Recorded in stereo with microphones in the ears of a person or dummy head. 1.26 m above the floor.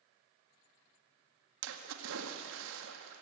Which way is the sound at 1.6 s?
75° right (ahead or behind).